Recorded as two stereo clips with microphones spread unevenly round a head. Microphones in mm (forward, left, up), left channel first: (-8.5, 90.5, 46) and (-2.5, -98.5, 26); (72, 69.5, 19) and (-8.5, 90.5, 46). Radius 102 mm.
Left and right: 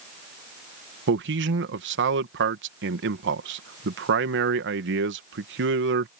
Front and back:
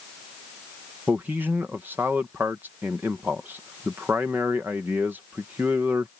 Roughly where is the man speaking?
Behind right.